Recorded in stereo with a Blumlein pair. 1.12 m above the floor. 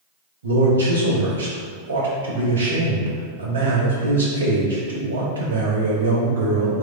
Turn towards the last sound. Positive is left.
turn(degrees=-70)